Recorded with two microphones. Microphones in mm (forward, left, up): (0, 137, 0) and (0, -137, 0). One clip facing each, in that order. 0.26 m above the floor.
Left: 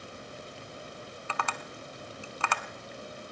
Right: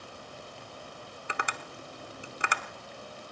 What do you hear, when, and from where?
1.3 s tapping: 15° right (ahead or behind), 0.9 m